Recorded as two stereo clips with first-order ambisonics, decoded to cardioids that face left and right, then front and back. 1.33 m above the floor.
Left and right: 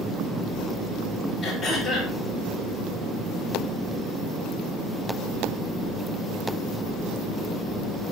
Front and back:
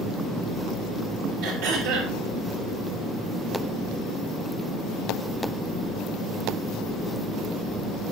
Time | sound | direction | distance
1.4 | throat clearing | 175° left | 5 m